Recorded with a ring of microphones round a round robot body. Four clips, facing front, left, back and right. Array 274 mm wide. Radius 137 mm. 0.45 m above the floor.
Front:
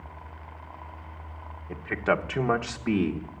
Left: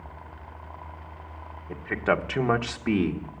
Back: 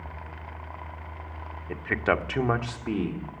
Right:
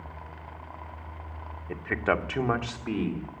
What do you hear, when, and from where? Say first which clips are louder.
1.7 s a man speaking: left 2 dB, even; 150° right, 1.2 m; by 3.3 s 65° left, 1.4 m